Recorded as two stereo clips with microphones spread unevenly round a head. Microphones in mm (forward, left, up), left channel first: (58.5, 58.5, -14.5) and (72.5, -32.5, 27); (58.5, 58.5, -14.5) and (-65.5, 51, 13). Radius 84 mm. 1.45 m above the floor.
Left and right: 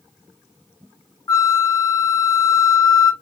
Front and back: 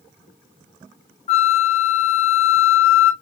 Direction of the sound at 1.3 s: 35° left.